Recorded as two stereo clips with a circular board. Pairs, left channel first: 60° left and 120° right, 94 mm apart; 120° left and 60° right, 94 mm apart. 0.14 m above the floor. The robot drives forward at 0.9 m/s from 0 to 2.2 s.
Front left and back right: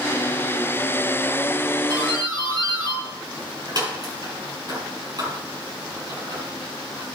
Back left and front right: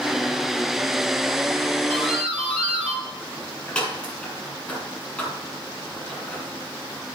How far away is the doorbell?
About 5.5 m.